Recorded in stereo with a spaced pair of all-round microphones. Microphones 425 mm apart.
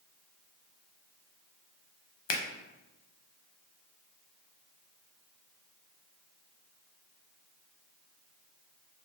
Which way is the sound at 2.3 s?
85° left.